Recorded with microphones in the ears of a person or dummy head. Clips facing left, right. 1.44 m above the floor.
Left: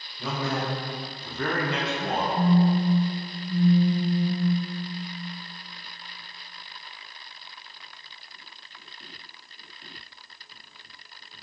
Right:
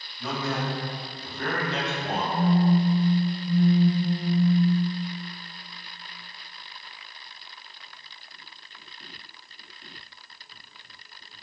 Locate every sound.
0.2 s a man speaking: 40° left (ahead or behind), 0.9 m; by 2.2 s 50° left (ahead or behind), 0.6 m
2.3 s a phone buzzing: 50° right (ahead or behind), 1.1 m